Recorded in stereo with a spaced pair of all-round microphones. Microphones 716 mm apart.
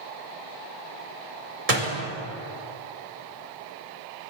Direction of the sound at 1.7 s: 60° right (ahead or behind).